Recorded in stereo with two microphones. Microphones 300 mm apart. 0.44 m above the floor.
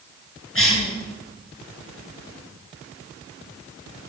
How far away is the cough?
About 6.5 m.